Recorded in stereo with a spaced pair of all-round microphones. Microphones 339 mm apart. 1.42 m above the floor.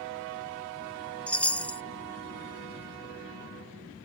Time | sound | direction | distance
1.3 | a chime | 5° left (ahead or behind) | ?